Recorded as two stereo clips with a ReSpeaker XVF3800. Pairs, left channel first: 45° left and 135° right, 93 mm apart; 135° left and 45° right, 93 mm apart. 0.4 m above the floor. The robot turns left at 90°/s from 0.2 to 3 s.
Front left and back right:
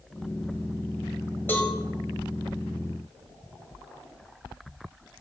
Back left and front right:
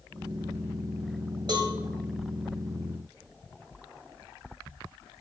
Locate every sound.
1.5 s a cowbell: 20° right, 1.6 m; by 1.7 s 40° right, 1.6 m